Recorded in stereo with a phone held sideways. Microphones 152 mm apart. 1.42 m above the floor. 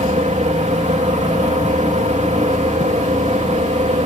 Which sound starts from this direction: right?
A fan, at 0.0 s.